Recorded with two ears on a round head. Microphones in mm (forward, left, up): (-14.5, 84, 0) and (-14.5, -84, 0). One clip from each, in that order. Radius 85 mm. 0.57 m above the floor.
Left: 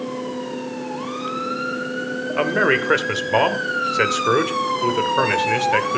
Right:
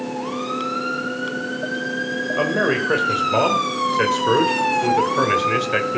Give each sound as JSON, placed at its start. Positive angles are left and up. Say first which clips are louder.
{"t": 2.4, "sound": "a man speaking", "louder": "left 2 dB", "side_deg": 60, "distance_m": 1.9}